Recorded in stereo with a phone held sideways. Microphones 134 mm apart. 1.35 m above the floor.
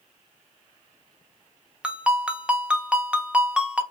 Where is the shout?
I don't hear a shout.